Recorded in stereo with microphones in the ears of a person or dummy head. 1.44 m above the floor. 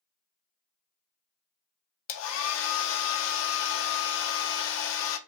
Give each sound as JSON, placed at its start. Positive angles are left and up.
{"t": 2.1, "sound": "a hair dryer", "side_deg": 75, "distance_m": 0.6}